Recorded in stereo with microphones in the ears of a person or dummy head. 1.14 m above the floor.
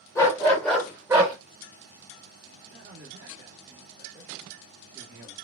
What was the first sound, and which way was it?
A dog barking, 20° left (ahead or behind).